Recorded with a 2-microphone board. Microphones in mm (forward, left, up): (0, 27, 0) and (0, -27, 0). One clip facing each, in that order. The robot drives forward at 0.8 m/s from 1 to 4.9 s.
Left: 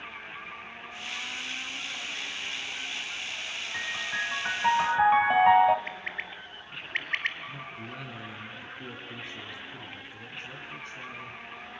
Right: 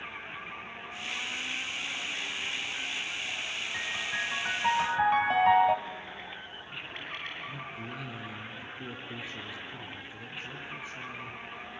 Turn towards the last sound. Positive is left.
turn(degrees=-5)  # may be behind; listen again after turning